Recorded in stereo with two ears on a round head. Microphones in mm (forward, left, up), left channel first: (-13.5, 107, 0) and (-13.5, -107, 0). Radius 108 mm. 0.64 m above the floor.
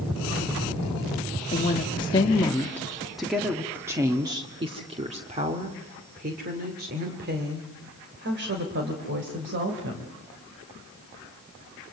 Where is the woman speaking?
30° left (ahead or behind), 1.7 m; by 10.1 s 55° right (ahead or behind), 4 m.